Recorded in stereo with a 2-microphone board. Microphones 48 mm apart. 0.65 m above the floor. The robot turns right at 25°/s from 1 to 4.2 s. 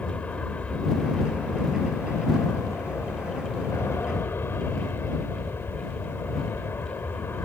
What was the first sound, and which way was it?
An aircraft, 40° left.